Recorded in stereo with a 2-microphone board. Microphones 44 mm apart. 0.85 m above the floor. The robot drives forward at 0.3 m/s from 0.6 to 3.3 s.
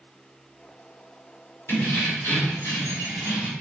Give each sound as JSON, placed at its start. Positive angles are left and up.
{"t": 1.7, "sound": "keys jangling", "side_deg": 60, "distance_m": 1.6}